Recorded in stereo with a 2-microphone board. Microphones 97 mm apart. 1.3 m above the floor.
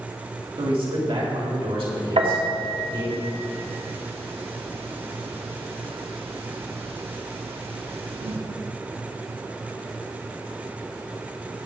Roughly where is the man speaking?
Right.